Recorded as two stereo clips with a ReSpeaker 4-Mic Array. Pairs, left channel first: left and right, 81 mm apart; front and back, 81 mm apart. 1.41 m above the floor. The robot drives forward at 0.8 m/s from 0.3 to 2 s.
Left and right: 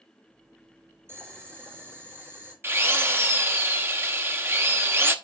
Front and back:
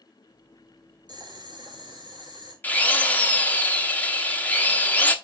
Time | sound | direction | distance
1.1 | boiling | 150° right | 4 m
2.6 | a drill | 55° right | 1.0 m